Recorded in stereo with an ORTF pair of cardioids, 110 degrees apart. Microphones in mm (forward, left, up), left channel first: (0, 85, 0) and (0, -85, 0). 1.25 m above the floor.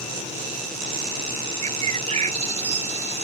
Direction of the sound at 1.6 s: 40° right.